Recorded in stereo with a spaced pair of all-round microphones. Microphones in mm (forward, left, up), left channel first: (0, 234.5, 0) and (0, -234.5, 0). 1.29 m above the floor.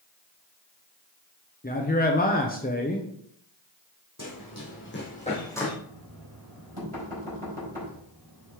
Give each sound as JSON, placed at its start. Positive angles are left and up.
{"t": 1.6, "sound": "a man speaking", "side_deg": 20, "distance_m": 0.7}
{"t": 4.2, "sound": "running footsteps", "side_deg": 40, "distance_m": 2.5}
{"t": 5.9, "sound": "knocking", "side_deg": -70, "distance_m": 3.5}